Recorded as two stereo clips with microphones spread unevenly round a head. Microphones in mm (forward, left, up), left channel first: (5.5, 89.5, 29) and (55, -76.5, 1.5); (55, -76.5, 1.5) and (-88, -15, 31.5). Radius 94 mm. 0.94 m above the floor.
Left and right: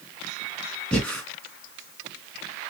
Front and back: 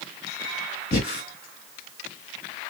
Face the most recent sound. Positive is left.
turn(degrees=20)